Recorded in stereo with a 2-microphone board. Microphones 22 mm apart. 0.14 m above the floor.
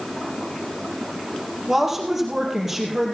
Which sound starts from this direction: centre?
A woman speaking, at 1.7 s.